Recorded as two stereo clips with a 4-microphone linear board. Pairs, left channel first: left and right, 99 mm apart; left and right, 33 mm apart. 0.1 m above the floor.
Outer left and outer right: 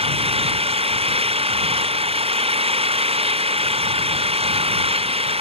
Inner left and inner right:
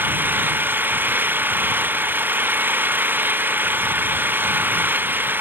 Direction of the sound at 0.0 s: 70° right (ahead or behind).